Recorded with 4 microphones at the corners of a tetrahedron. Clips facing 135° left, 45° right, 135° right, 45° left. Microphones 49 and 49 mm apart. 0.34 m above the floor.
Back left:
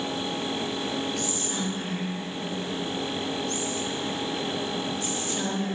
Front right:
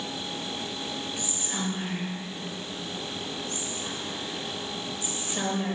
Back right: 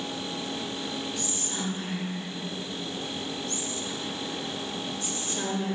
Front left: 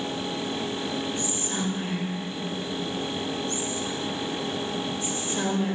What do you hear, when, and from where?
1.2 s whispering: 10° left, 1.3 m